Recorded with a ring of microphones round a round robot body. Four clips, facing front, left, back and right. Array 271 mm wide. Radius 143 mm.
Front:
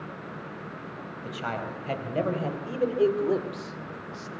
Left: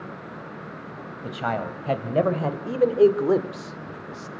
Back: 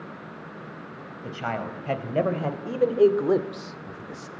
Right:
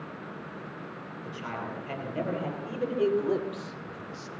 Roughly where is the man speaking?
Left.